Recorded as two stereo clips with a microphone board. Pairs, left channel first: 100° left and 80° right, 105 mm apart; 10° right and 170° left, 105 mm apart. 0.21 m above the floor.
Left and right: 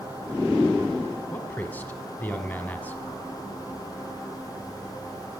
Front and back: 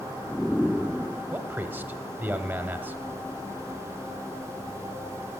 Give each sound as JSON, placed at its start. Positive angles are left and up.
{"t": 1.3, "sound": "a man speaking", "azimuth_deg": 135, "distance_m": 1.2}